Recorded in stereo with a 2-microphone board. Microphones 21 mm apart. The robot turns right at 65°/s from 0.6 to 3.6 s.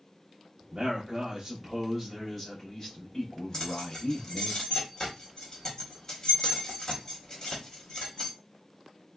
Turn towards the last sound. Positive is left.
turn(degrees=25)  # may be behind; listen again after turning